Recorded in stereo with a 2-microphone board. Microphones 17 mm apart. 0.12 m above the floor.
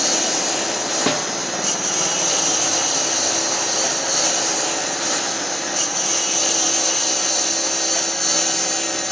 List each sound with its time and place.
0.0 s a lawn mower: 10° right (ahead or behind); by 9.1 s 15° left (ahead or behind)
1.1 s a snare drum: centre (ahead or behind)